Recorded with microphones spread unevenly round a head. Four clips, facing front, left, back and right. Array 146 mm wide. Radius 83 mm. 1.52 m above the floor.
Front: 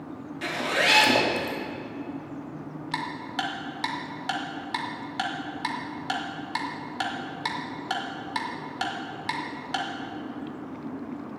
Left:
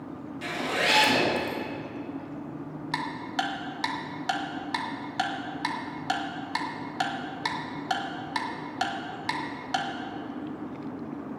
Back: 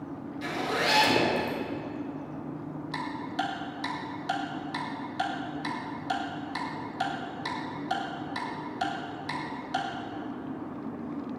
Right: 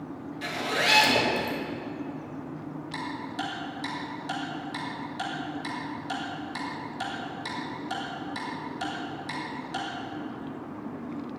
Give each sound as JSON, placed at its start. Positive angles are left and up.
{"t": 0.4, "sound": "a zipper", "azimuth_deg": -10, "distance_m": 3.0}
{"t": 2.9, "sound": "ticking", "azimuth_deg": 45, "distance_m": 2.0}